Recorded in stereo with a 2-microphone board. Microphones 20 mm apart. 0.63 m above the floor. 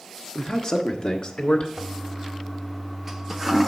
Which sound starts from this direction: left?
A man speaking, at 0.3 s.